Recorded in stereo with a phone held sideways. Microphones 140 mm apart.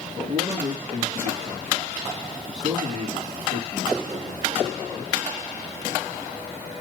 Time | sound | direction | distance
0.1 | a man speaking | 45° right (ahead or behind) | 3 m